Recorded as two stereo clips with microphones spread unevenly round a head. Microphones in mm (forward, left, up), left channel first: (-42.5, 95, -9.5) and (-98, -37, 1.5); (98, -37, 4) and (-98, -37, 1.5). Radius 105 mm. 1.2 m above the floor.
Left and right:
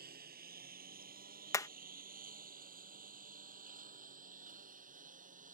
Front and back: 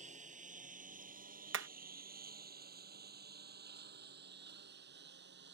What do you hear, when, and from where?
0.0 s a lawn mower: 125° right; by 5.5 s 145° right
1.5 s hammering: 140° left